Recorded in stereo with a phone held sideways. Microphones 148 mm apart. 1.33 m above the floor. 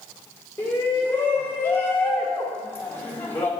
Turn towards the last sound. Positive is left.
turn(degrees=15)  # may be behind; listen again after turning